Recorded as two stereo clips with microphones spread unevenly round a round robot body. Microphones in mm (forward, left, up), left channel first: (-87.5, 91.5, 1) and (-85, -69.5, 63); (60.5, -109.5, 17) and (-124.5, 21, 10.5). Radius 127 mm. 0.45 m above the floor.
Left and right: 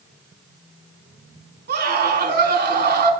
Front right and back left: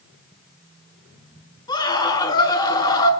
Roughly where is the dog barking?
No dog barking in this recording.